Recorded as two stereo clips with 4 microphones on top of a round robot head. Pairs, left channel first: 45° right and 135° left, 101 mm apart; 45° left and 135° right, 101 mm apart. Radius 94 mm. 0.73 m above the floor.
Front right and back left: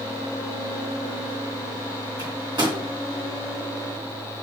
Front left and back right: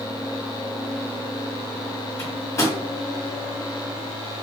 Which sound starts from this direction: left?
A microwave, at 2.2 s.